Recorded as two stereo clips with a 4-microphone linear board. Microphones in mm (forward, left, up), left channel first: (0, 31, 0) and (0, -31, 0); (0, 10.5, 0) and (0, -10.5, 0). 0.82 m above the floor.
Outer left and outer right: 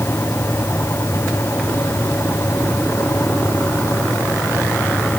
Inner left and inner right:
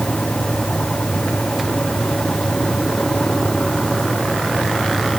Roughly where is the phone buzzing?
No phone buzzing in this recording.